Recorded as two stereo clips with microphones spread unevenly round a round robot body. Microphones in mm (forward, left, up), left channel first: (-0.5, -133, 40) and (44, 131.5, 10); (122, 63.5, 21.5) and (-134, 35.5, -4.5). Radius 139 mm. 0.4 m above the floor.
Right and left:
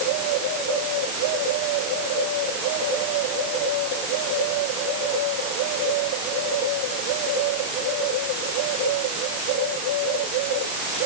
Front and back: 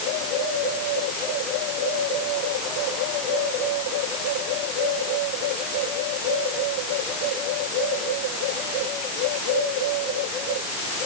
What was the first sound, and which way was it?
Only background noise.